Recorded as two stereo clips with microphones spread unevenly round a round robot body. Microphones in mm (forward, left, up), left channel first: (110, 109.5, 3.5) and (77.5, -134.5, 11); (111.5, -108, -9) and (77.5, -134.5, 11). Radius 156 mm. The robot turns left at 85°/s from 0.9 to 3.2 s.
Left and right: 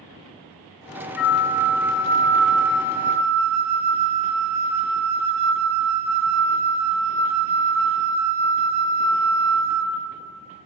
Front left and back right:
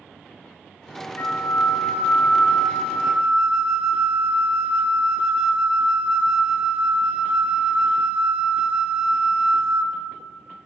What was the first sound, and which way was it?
A flute, 105° left.